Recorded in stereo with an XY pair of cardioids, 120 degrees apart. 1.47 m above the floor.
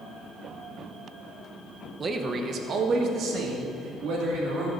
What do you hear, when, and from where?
2.0 s a man speaking: 35° right, 1.0 m; by 4.7 s 75° right, 3 m